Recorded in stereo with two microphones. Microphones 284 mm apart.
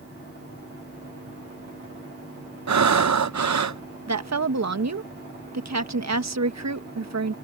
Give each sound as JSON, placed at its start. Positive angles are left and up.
{"t": 2.7, "sound": "breathing", "side_deg": -75}
{"t": 4.1, "sound": "a woman speaking", "side_deg": -70}